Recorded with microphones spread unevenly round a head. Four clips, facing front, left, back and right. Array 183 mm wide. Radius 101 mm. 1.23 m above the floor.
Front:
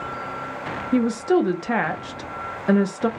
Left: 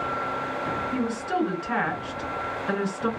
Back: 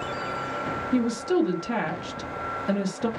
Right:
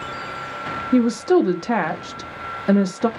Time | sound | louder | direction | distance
0.9 | a woman speaking | right 14 dB, front 5 dB | 65° right | 0.6 m